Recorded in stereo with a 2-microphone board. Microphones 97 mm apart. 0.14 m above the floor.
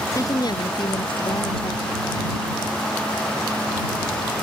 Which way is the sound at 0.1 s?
35° left (ahead or behind).